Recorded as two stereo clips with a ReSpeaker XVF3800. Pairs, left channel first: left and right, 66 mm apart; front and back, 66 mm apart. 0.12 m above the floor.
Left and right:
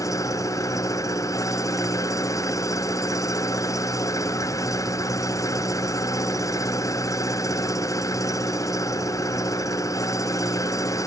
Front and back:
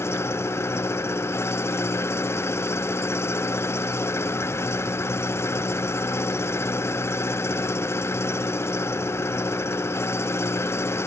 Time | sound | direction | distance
0.0 | an engine running | 50° left | ?